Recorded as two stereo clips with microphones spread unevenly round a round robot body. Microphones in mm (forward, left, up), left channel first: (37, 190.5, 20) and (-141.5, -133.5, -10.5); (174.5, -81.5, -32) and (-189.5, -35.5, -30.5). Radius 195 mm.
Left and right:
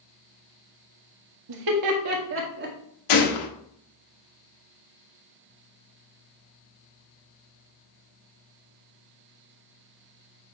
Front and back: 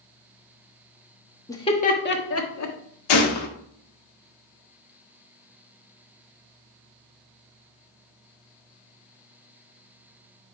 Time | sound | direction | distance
1.5 | laughter | 90° right | 1.3 m
3.1 | a gunshot | 30° left | 1.2 m